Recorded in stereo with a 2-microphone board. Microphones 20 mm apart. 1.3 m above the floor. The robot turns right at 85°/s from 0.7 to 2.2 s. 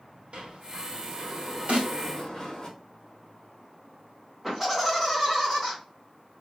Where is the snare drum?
75° right (ahead or behind), 2.5 m; by 1.9 s 65° right (ahead or behind), 2.5 m.